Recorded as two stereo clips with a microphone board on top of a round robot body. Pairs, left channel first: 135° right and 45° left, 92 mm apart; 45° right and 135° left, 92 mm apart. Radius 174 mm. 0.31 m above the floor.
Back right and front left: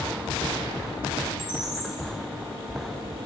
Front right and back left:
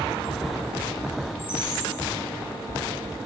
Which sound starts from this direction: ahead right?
A bird, at 1.4 s.